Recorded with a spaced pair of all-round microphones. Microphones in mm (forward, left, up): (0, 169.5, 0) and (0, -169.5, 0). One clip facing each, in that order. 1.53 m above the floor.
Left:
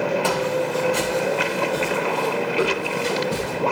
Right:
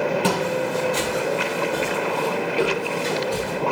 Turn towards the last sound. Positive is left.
turn(degrees=25)  # may be behind; listen again after turning